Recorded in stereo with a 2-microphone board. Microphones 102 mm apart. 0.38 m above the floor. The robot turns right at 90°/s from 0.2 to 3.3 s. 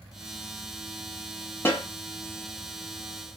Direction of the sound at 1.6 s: 20° left (ahead or behind).